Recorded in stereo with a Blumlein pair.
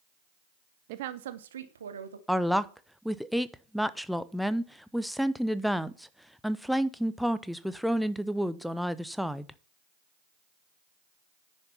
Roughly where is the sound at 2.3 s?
Ahead.